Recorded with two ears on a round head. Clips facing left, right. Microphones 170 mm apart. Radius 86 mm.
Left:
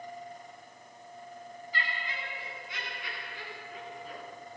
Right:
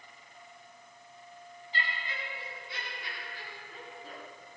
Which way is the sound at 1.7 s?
25° right (ahead or behind).